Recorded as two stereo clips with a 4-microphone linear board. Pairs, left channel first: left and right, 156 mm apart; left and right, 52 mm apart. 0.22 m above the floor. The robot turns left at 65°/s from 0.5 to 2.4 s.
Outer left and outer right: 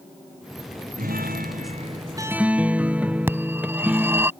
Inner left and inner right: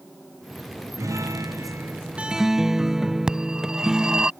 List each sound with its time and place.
1.0 s a guitar: 80° right; by 4.3 s 170° right
3.3 s a phone ringing: 15° right (ahead or behind)